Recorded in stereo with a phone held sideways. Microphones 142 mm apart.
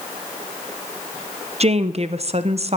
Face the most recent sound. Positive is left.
turn(degrees=-45)  # may be behind; listen again after turning